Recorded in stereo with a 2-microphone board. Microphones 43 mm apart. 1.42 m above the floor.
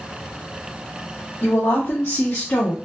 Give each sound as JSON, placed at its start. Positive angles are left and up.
{"t": 1.4, "sound": "a woman speaking", "side_deg": 75, "distance_m": 1.8}